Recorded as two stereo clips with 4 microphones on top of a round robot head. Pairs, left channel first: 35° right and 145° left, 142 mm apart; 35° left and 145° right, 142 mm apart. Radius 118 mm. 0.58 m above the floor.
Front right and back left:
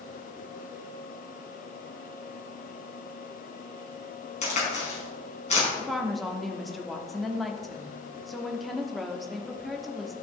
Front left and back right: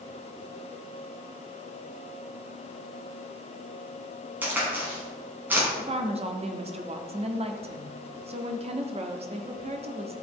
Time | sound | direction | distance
4.4 | a crack | 70° right | 4.5 m
5.8 | a woman speaking | 125° right | 1.4 m